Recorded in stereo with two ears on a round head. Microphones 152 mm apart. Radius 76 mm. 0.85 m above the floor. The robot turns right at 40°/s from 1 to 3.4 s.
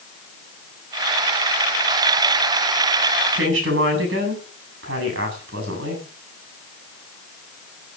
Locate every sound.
3.3 s a woman speaking: 85° right, 7.5 m